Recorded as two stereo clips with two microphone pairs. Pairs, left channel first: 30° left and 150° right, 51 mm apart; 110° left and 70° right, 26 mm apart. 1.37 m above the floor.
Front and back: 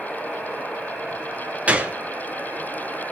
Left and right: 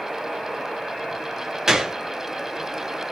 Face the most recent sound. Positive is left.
turn(degrees=-120)